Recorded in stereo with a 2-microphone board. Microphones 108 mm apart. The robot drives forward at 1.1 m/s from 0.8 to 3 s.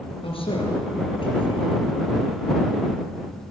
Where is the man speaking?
55° left (ahead or behind), 5 m; by 1.8 s 50° left (ahead or behind), 5.5 m.